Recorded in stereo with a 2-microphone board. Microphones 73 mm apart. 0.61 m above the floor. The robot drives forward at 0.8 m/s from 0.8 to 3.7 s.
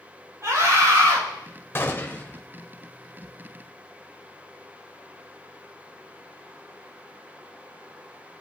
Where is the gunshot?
35° left (ahead or behind), 1.1 m; by 2.4 s 20° left (ahead or behind), 1.6 m.